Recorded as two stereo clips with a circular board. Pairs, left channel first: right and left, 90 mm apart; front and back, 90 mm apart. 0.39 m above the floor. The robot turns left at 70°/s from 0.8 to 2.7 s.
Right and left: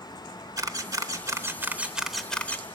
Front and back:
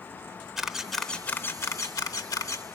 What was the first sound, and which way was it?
A camera shutter, 95° left.